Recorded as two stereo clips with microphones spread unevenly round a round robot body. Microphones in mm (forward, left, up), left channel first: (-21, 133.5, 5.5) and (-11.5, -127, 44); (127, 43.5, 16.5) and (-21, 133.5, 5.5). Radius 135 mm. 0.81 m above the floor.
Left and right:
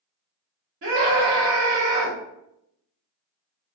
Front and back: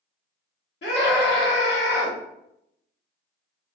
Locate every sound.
0.8 s a scream: 50° right, 1.2 m